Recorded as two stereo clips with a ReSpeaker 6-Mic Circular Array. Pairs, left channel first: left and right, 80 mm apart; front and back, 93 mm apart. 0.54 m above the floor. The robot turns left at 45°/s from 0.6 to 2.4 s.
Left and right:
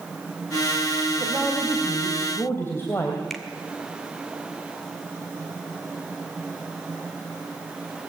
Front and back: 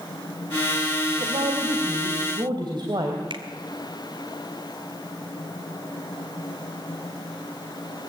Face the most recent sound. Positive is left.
turn(degrees=180)